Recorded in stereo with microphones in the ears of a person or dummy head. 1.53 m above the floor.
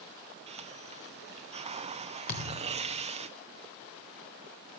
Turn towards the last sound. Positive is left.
turn(degrees=50)  # may be behind; listen again after turning